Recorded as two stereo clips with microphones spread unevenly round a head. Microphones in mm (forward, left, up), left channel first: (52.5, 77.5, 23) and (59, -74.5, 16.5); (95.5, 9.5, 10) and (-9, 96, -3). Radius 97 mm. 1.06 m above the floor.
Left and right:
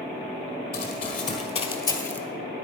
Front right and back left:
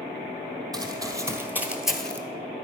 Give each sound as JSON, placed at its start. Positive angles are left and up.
{"t": 0.7, "sound": "running footsteps", "azimuth_deg": 80, "distance_m": 2.5}